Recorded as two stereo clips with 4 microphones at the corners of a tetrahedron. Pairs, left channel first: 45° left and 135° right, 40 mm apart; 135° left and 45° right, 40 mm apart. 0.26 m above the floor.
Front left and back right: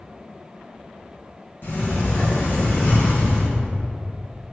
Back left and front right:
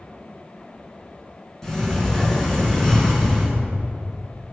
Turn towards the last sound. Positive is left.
turn(degrees=55)